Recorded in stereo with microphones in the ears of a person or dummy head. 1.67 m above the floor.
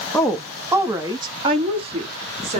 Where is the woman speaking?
10° left (ahead or behind), 0.5 m; by 2.6 s 40° right (ahead or behind), 1.7 m.